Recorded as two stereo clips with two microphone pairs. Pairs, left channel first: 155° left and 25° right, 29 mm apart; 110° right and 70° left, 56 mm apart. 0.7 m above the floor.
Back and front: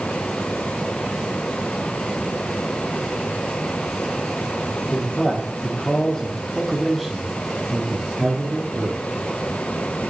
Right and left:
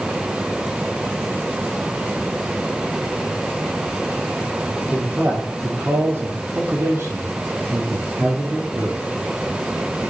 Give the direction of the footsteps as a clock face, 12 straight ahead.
No footsteps in this recording.